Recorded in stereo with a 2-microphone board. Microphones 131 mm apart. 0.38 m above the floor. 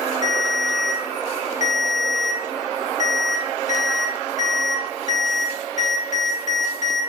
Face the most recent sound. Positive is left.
turn(degrees=65)  # may be behind; listen again after turning